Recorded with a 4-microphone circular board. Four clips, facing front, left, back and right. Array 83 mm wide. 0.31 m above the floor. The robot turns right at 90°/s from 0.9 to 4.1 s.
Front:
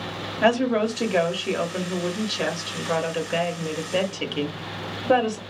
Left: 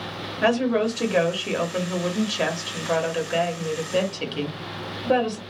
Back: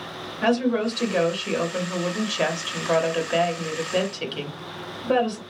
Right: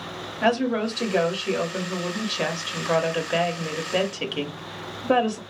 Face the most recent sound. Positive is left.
turn(degrees=-45)